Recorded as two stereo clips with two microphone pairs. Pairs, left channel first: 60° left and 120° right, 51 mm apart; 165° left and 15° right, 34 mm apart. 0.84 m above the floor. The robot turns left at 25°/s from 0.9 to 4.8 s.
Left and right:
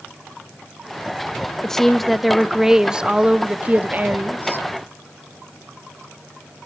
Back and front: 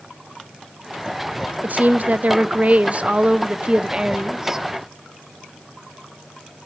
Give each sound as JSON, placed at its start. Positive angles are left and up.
{"t": 1.6, "sound": "a woman speaking", "azimuth_deg": -20, "distance_m": 0.6}